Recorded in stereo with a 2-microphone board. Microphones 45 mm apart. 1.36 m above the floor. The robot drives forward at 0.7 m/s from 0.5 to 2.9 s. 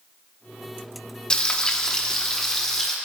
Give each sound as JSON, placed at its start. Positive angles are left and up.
{"t": 1.3, "sound": "frying", "side_deg": 20, "distance_m": 0.9}